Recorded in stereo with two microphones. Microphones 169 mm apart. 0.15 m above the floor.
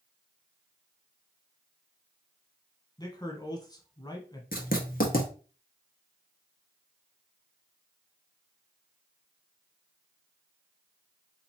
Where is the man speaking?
25° left (ahead or behind), 1.1 m.